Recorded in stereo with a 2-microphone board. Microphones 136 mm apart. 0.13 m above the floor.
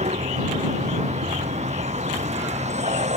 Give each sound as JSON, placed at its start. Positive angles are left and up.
{"t": 0.0, "sound": "a vehicle", "side_deg": -60}